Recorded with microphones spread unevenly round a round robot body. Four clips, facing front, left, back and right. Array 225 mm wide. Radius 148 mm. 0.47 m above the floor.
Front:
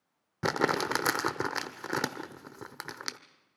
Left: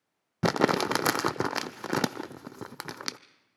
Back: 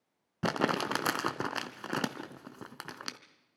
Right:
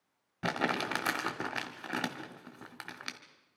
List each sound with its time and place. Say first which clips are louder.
0.4 s crumpling: left 8 dB, front 2 dB; 85° left, 0.5 m